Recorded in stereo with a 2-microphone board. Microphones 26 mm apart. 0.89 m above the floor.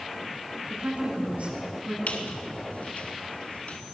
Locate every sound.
0.7 s a woman speaking: 65° right (ahead or behind), 10 m
2.1 s a squeak: 70° left (ahead or behind), 3.5 m